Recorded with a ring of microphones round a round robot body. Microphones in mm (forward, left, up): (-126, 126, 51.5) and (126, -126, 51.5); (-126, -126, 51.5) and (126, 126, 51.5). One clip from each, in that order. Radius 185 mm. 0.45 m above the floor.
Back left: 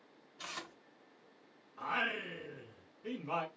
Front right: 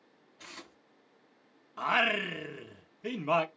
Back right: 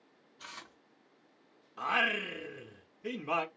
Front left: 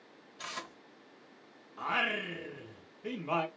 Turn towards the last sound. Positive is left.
turn(degrees=-65)